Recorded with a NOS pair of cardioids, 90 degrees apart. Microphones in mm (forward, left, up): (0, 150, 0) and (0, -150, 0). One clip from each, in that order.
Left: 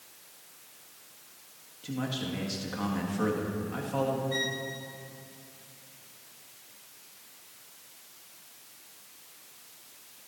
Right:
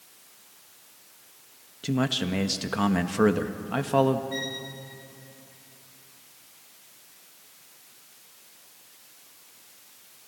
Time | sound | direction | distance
1.8 | a man speaking | 70° right | 1.7 m
4.3 | a violin | 15° left | 3 m